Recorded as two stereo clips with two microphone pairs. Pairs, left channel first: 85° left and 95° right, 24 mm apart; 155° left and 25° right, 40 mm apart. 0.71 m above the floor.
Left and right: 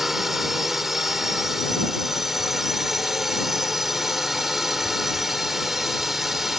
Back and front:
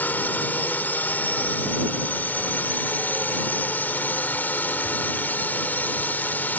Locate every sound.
0.0 s a drone: 170° right